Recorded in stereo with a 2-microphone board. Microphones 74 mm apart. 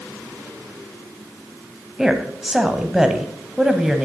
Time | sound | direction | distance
2.0 | a woman speaking | 5° right (ahead or behind) | 1.0 m